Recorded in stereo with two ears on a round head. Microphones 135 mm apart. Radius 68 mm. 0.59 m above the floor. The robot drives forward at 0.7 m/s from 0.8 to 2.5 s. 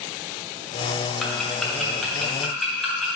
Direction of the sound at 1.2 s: 5° left (ahead or behind).